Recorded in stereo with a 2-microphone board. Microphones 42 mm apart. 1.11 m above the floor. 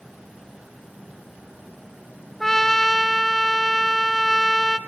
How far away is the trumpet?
About 1.1 m.